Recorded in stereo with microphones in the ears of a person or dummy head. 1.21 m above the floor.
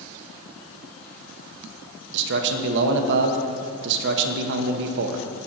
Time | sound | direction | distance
2.1 | a man speaking | 65° right (ahead or behind) | 0.8 m